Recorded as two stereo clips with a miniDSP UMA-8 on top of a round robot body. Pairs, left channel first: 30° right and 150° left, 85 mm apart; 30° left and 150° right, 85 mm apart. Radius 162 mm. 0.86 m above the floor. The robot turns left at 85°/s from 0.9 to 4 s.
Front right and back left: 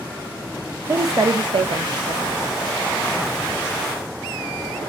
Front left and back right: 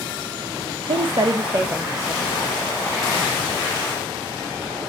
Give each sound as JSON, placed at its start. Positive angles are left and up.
{"t": 0.9, "sound": "a woman speaking", "azimuth_deg": -145, "distance_m": 0.8}